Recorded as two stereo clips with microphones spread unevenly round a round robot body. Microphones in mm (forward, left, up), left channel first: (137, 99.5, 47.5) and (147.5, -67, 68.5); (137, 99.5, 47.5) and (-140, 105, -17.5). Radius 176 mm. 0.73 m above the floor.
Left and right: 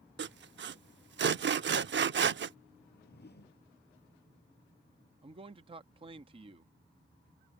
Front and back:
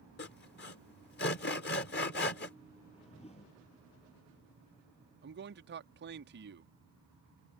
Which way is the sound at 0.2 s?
65° right.